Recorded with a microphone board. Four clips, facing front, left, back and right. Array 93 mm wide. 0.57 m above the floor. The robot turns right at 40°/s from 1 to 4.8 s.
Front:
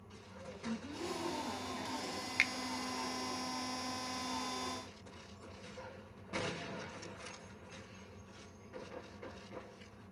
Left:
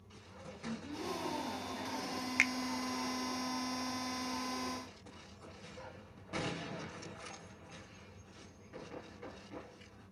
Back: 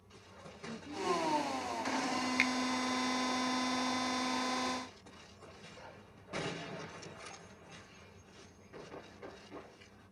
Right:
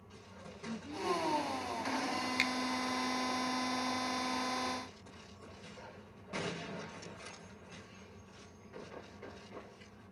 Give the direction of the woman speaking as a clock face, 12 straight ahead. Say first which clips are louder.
Even, front 1 dB; 11 o'clock.